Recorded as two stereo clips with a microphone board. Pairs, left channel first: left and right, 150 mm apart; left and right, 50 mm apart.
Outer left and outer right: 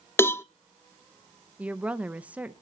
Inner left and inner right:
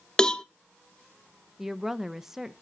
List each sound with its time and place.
0.2 s a cowbell: 15° left (ahead or behind), 0.5 m
1.6 s a woman speaking: 10° right (ahead or behind), 0.8 m